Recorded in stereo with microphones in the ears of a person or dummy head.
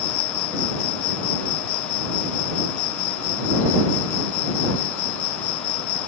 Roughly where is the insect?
Left.